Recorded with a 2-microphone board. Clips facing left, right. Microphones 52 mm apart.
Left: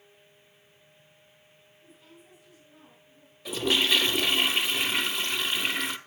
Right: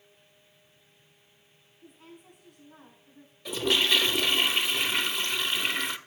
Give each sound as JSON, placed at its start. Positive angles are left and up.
{"t": 1.8, "sound": "a woman speaking", "side_deg": -65, "distance_m": 6.0}
{"t": 3.5, "sound": "a toilet flushing", "side_deg": 5, "distance_m": 0.6}